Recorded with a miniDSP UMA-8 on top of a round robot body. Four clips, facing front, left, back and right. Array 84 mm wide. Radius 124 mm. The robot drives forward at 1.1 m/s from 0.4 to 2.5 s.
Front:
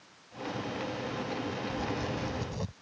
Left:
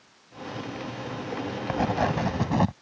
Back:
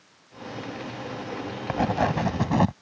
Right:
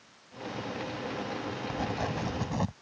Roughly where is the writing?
Behind left.